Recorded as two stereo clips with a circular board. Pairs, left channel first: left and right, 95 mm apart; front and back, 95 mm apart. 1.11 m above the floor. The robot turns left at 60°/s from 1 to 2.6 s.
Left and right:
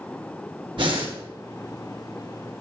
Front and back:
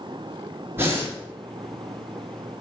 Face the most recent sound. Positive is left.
turn(degrees=150)